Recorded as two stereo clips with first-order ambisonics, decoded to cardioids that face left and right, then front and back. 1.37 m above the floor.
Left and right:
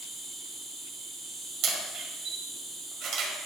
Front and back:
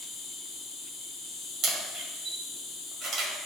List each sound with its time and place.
0.0 s an insect: 20° right, 1.9 m
1.6 s a camera shutter: 125° right, 1.6 m